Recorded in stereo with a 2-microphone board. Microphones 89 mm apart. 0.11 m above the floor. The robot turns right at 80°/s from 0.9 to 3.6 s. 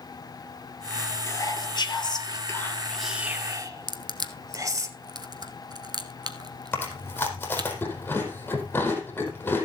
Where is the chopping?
No chopping in this recording.